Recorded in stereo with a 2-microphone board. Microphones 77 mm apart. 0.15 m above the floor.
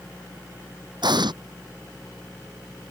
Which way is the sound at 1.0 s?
70° right (ahead or behind).